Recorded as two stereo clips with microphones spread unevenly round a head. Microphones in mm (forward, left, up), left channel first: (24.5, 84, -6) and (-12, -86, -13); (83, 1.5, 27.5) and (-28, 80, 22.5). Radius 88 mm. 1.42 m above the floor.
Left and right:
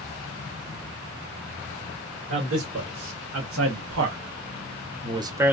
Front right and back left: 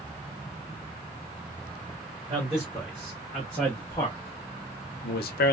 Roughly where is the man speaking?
Behind right.